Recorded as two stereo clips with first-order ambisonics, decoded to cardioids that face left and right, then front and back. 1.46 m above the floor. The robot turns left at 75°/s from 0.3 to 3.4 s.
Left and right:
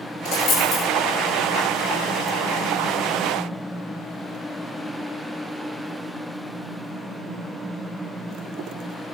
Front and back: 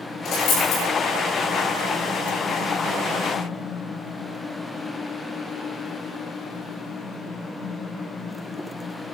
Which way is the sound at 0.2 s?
55° left.